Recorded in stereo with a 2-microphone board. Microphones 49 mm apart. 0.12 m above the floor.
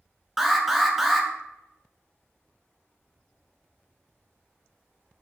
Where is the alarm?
Centre (ahead or behind), 0.8 m.